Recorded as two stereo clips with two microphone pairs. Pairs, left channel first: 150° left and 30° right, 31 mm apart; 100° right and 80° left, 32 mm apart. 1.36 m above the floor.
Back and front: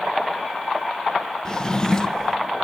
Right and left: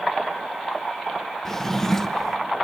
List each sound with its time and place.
1.4 s a drawer: 160° right, 0.5 m